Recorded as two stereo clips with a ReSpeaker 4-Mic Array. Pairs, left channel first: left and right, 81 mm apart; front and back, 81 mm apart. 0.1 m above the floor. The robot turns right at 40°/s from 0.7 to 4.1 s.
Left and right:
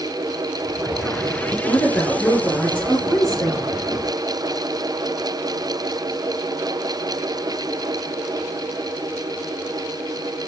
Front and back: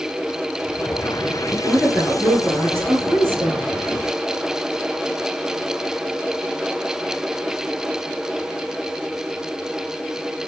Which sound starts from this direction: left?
A woman speaking, at 1.5 s.